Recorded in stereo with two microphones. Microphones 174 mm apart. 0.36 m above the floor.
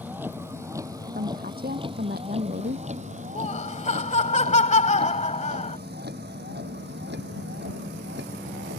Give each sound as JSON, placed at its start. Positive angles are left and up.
{"t": 0.0, "sound": "a vehicle", "side_deg": -10}
{"t": 1.1, "sound": "a woman speaking", "side_deg": -55}
{"t": 3.4, "sound": "laughter", "side_deg": 40}